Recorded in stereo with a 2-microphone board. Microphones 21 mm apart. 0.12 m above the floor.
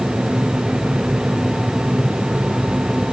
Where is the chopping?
I don't hear chopping.